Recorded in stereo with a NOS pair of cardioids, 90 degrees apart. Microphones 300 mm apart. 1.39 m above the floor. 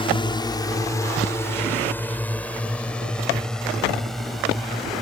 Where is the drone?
20° left; by 5.0 s straight ahead.